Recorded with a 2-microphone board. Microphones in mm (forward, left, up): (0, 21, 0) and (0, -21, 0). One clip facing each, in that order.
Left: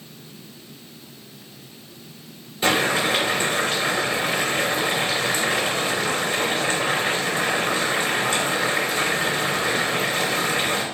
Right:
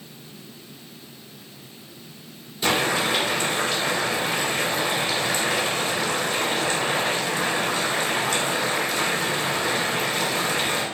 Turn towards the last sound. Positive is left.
turn(degrees=30)  # may be behind; listen again after turning